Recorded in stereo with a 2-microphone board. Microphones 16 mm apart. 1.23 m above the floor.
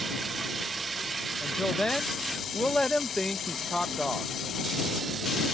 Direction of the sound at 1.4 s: 45° left (ahead or behind).